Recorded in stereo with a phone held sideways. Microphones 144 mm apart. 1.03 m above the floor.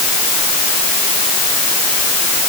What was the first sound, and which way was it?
Only background noise.